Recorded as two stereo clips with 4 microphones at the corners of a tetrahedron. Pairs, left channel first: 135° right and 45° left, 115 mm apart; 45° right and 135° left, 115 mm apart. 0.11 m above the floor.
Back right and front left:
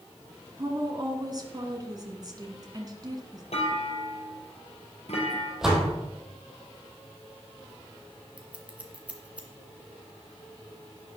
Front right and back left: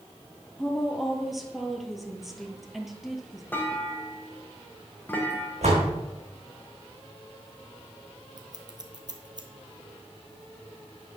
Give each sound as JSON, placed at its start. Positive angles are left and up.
{"t": 0.6, "sound": "a woman speaking", "azimuth_deg": 50, "distance_m": 1.7}
{"t": 3.5, "sound": "a clunk", "azimuth_deg": -115, "distance_m": 2.5}
{"t": 5.6, "sound": "a door slam", "azimuth_deg": 130, "distance_m": 3.5}
{"t": 8.4, "sound": "scissors", "azimuth_deg": 120, "distance_m": 1.6}